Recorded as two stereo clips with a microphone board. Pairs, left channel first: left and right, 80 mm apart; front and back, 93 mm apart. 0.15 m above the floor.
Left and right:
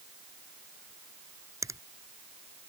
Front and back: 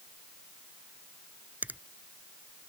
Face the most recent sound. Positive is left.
turn(degrees=-115)